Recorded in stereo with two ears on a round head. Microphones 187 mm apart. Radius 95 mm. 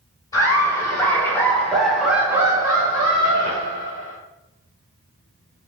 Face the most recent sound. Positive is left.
turn(degrees=-30)  # may be behind; listen again after turning